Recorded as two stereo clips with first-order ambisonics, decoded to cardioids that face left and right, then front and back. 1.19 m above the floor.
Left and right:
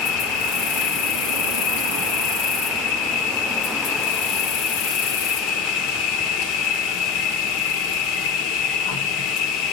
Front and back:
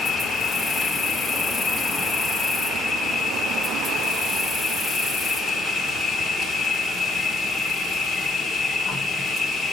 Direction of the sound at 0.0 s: 90° left.